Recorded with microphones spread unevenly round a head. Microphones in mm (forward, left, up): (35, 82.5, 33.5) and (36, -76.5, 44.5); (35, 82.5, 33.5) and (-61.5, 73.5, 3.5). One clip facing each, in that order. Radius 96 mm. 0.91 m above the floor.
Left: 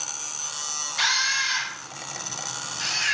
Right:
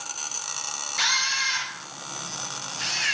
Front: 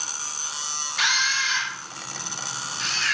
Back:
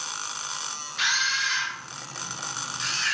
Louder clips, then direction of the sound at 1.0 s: Left 2 dB, front 2 dB; 5° right.